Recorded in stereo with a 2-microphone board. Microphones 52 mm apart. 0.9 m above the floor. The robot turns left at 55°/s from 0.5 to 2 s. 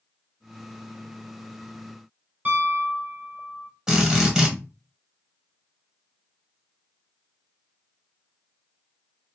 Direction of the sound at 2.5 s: 40° right (ahead or behind).